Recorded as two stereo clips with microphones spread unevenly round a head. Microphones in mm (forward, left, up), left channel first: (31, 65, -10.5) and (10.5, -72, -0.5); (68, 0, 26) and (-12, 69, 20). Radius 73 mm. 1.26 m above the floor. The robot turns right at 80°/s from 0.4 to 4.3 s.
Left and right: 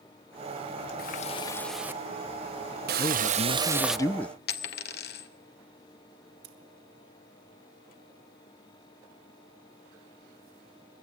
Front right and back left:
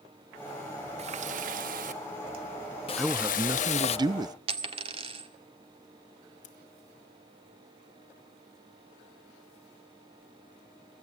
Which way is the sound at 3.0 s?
50° left.